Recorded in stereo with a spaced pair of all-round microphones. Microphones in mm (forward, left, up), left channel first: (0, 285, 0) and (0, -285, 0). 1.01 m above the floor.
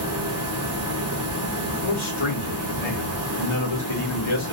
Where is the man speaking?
55° left (ahead or behind), 0.9 m.